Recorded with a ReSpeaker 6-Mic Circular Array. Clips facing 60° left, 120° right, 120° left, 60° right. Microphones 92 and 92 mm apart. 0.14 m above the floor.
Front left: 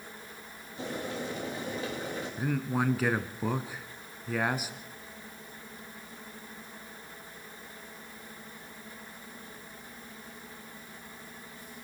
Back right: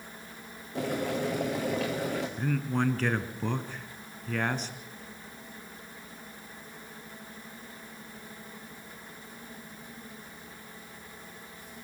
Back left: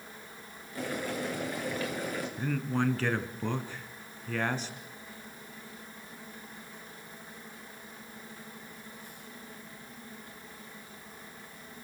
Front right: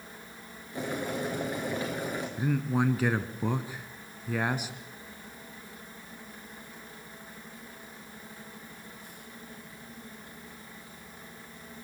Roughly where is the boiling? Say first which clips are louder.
Back right 6 dB, front right 2 dB; behind right.